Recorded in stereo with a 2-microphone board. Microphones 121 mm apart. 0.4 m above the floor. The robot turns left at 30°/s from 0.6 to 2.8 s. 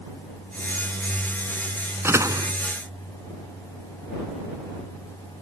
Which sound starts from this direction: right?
A door slam, at 2.0 s.